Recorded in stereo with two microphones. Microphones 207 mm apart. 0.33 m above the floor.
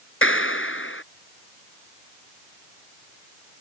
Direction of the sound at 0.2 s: 80° left.